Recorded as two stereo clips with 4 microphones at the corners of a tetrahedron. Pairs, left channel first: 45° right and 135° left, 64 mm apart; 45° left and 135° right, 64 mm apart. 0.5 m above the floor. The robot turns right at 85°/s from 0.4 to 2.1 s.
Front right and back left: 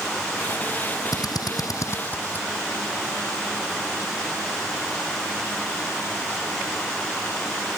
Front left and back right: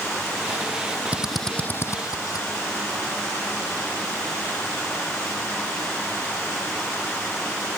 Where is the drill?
65° right; by 2.5 s 15° left.